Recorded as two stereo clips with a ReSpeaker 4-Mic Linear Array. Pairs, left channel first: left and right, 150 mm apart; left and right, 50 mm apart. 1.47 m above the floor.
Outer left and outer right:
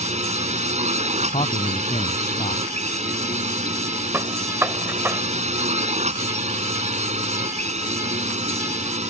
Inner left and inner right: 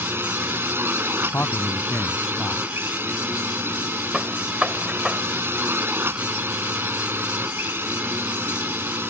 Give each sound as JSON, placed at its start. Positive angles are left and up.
{"t": 0.0, "sound": "a drone", "side_deg": -50}
{"t": 1.2, "sound": "a man speaking", "side_deg": 45}
{"t": 4.1, "sound": "a gunshot", "side_deg": -15}